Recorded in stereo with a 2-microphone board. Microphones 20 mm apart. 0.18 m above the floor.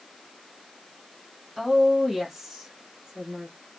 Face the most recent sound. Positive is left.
turn(degrees=-15)  # may be behind; listen again after turning